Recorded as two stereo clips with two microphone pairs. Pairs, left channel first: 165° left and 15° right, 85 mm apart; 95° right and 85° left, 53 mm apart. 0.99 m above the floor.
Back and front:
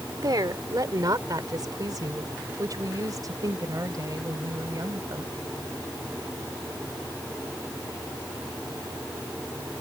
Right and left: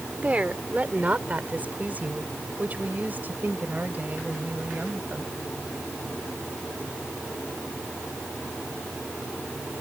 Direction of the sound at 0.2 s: 25° left.